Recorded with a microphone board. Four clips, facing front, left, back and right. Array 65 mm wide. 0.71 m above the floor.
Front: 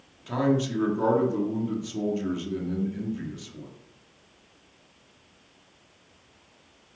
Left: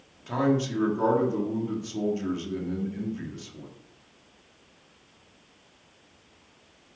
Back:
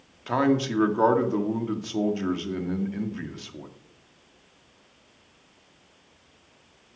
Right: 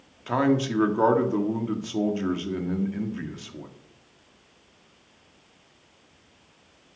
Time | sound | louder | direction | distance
0.3 | a man speaking | right 2 dB, back 2 dB | 140° right | 1.6 m